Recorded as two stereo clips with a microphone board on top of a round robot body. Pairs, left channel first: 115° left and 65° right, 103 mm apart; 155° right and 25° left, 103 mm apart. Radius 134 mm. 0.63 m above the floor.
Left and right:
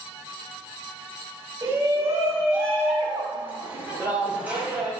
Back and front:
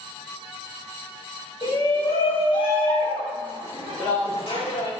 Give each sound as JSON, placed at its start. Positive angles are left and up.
{"t": 1.6, "sound": "a shout", "azimuth_deg": -120, "distance_m": 4.0}